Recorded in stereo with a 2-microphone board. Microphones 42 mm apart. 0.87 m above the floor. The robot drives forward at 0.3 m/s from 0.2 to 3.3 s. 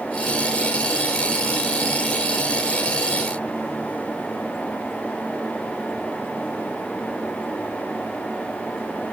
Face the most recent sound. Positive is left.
No sound to turn to.